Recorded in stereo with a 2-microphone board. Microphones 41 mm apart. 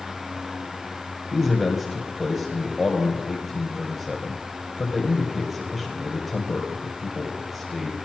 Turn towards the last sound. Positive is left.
turn(degrees=0)  # may be behind; listen again after turning